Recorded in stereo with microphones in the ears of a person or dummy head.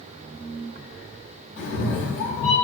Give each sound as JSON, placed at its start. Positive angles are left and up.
{"t": 1.6, "sound": "a cat meowing", "side_deg": 65, "distance_m": 1.3}